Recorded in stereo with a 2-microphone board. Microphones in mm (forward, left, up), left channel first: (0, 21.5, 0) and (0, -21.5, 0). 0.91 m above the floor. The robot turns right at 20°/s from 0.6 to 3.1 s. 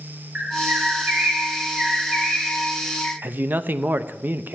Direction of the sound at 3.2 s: 45° right (ahead or behind).